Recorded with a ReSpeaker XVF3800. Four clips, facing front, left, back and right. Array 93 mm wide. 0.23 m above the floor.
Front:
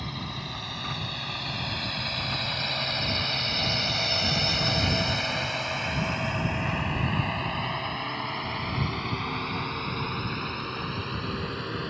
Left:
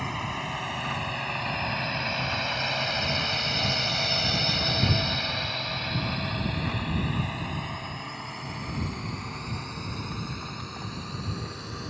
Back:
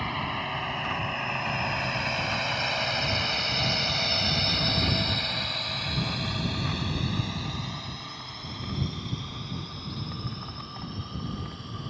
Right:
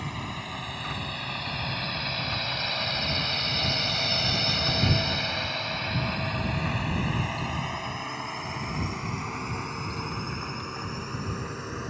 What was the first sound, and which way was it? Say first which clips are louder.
A drone: left 4 dB, back 6 dB; 150° left.